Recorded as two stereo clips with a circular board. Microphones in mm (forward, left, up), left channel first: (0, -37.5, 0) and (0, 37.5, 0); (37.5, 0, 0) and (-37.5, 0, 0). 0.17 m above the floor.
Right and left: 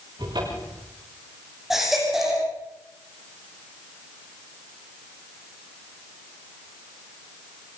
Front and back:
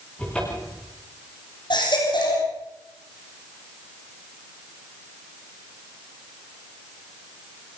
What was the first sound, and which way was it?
A cupboard door, 75° left.